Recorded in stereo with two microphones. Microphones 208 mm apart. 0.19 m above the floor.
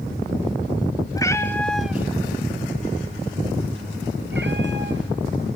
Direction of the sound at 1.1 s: 15° left (ahead or behind).